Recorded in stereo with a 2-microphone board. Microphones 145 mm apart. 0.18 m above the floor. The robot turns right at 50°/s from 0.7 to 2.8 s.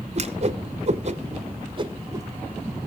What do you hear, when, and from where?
0.1 s a whoosh: 45° right (ahead or behind), 0.8 m; by 2.8 s centre (ahead or behind), 0.8 m